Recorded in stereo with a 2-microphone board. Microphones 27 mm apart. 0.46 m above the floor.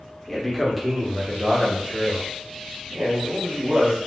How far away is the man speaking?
About 0.9 m.